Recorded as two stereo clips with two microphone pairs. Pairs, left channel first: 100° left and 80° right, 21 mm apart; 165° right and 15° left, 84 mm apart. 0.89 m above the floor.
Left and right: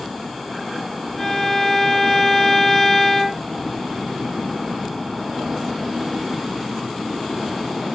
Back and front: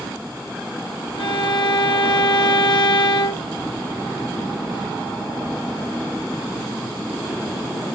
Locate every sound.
1.2 s a violin: 175° left, 1.2 m